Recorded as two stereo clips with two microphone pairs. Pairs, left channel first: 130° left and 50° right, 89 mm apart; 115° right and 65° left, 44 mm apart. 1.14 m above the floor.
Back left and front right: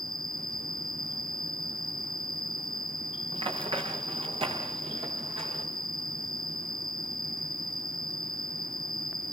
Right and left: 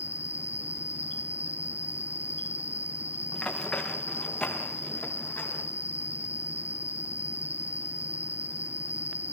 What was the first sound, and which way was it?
An insect, 95° right.